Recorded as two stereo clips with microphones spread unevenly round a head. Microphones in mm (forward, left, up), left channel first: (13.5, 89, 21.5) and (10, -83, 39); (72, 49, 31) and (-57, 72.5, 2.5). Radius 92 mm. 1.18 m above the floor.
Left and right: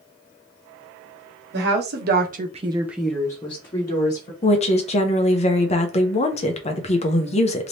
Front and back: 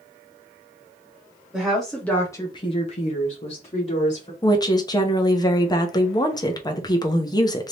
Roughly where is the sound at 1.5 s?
Right.